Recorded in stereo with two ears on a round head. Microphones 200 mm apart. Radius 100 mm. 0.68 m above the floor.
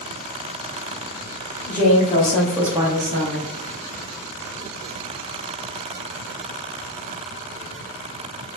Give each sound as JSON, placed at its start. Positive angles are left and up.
{"t": 1.7, "sound": "a woman speaking", "side_deg": 40, "distance_m": 1.2}